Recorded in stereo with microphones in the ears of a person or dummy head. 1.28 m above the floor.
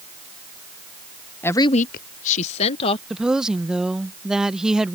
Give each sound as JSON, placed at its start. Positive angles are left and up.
{"t": 1.4, "sound": "a woman speaking", "side_deg": 10}
{"t": 3.1, "sound": "a woman speaking", "side_deg": 0}